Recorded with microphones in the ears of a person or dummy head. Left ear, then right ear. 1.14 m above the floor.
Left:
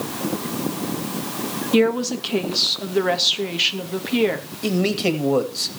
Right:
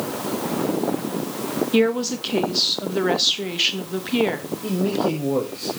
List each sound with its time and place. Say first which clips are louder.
1.7 s a woman speaking: left 2 dB; centre (ahead or behind), 1.1 m
4.6 s a man speaking: left 2 dB; 70° left (ahead or behind), 1.9 m